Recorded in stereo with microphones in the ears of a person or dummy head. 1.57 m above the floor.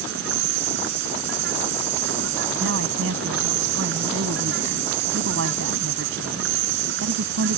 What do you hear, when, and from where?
0.0 s an insect: 70° right (ahead or behind)
2.6 s a woman speaking: 80° right